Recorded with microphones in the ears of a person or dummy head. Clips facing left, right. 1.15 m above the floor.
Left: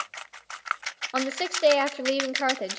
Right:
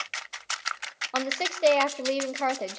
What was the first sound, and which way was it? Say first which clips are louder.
A woman speaking: left 2 dB; 5° left (ahead or behind).